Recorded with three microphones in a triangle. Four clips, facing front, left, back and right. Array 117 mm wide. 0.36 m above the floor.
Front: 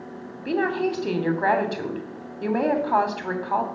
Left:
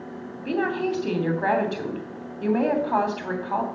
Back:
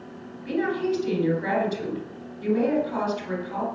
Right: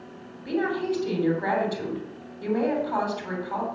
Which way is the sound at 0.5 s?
25° left.